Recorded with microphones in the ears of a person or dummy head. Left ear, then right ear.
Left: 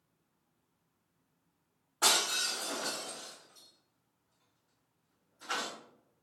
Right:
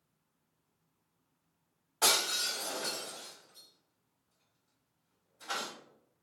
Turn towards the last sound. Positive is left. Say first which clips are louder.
# even
turn(degrees=-40)  # may be behind; listen again after turning